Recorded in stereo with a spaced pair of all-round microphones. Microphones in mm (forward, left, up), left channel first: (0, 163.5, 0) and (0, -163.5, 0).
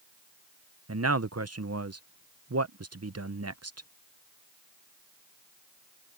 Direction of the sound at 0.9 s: 50° right (ahead or behind).